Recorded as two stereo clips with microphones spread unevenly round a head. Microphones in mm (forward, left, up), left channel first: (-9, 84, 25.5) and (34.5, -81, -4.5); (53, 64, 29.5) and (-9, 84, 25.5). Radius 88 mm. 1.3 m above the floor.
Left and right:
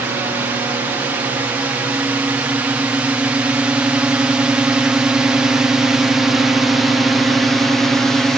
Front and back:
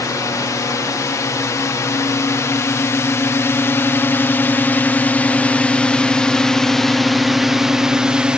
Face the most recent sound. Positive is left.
turn(degrees=-150)